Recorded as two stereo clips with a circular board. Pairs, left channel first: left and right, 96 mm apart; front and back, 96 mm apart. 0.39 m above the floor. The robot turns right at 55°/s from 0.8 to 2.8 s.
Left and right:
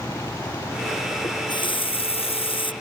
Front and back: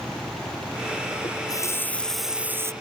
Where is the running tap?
35° left; by 2.7 s 120° left.